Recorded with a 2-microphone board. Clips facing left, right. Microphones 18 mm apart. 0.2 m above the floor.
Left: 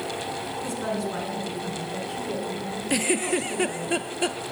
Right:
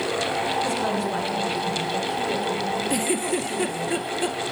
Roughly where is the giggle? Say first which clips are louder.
Even; left.